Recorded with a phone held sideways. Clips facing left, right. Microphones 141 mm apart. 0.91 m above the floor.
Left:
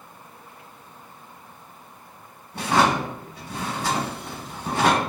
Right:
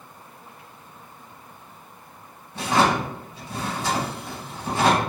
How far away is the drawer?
About 1.6 m.